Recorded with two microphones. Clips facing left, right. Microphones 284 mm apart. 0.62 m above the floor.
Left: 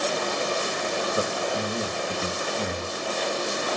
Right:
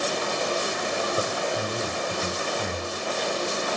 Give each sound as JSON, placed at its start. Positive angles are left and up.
{"t": 1.1, "sound": "a man speaking", "side_deg": 35, "distance_m": 2.0}